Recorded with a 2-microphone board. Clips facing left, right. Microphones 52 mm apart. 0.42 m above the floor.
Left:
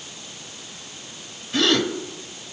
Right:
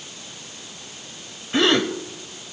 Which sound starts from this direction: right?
A gasp, at 1.5 s.